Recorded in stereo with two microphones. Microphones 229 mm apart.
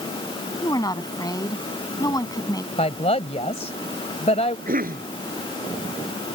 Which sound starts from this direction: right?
A cough, at 4.7 s.